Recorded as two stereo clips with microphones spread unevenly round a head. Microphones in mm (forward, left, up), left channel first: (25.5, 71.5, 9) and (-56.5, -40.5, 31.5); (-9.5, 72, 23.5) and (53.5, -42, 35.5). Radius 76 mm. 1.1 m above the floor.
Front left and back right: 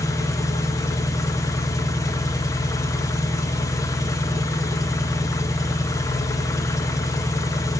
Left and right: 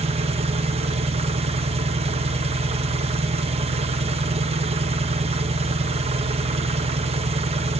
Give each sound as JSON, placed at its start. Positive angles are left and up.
{"t": 0.0, "sound": "an engine running", "azimuth_deg": -15, "distance_m": 1.1}